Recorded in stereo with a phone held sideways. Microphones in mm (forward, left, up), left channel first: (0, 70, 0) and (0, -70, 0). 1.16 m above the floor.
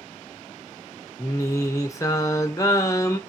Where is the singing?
25° left (ahead or behind), 1.1 m.